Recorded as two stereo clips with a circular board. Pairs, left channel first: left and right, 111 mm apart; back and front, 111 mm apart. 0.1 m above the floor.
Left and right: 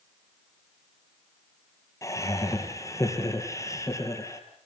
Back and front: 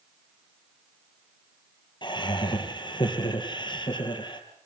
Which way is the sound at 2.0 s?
145° left.